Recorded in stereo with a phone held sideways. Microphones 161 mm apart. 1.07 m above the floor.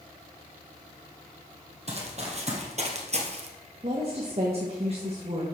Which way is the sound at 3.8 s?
40° right (ahead or behind).